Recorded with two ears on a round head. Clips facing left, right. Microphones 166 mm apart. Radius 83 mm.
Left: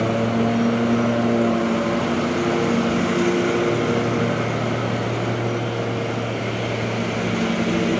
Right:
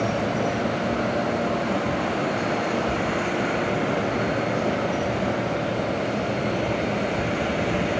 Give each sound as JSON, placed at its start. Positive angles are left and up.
{"t": 0.0, "sound": "a lawn mower", "side_deg": 50}